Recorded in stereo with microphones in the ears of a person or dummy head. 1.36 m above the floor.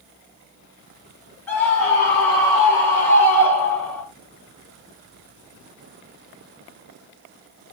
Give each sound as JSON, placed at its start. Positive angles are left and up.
{"t": 1.5, "sound": "a scream", "side_deg": 15, "distance_m": 5.5}